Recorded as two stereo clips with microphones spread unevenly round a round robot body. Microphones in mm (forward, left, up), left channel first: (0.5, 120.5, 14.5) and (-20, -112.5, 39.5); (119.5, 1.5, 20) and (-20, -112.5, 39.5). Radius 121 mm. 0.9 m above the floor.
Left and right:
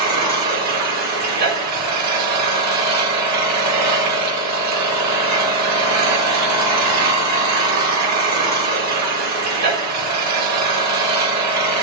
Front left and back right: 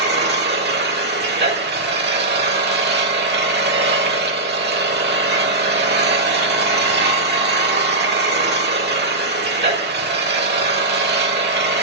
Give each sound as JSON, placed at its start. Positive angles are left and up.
{"t": 0.0, "sound": "an engine running", "azimuth_deg": -115, "distance_m": 1.8}